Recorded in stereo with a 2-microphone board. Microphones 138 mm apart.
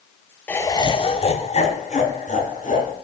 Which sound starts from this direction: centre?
Laughter, at 0.5 s.